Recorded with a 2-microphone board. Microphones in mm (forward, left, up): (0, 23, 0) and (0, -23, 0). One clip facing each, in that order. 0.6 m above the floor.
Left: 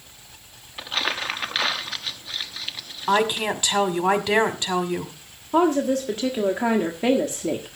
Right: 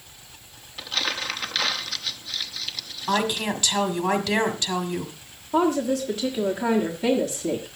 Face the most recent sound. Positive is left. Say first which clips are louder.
# left 2 dB
turn(degrees=35)  # may be behind; listen again after turning